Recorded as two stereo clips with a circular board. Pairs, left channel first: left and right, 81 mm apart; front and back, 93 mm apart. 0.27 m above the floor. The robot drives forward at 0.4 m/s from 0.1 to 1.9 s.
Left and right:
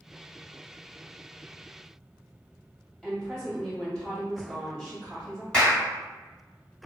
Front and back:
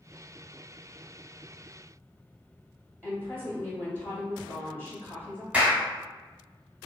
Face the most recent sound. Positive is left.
turn(degrees=145)